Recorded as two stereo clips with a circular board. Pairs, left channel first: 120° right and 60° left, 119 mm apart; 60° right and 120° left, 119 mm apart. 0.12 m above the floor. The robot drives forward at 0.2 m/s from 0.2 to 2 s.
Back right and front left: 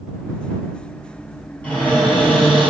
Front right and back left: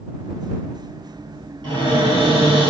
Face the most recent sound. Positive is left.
turn(degrees=165)